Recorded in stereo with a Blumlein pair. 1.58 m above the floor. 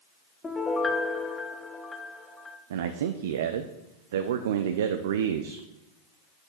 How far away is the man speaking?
About 0.5 m.